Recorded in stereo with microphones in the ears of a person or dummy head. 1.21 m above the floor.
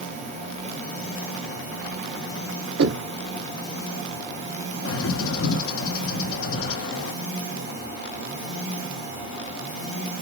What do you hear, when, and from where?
2.8 s knocking: 80° right, 1.8 m
4.8 s a bird: 60° left (ahead or behind), 1.0 m